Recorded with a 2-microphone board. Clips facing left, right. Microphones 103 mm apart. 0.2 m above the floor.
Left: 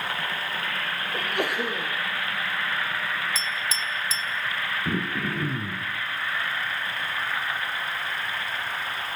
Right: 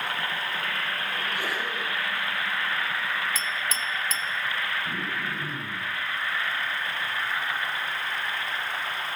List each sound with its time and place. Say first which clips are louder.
1.1 s a sneeze: left 7 dB; 65° left (ahead or behind), 5.5 m
3.4 s a clink: even; 55° right (ahead or behind), 1.4 m
4.8 s throat clearing: left 4 dB; 60° left (ahead or behind), 4.5 m